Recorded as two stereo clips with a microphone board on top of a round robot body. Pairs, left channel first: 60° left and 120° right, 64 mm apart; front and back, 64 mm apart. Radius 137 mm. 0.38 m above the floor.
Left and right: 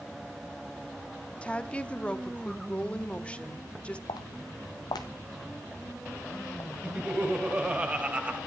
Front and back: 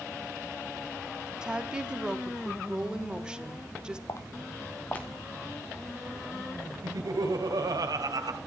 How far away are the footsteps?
About 0.9 m.